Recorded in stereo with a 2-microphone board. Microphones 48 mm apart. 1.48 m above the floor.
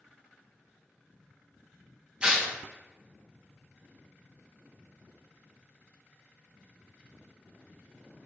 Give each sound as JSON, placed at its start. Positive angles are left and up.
{"t": 2.2, "sound": "tearing paper", "side_deg": -20, "distance_m": 0.5}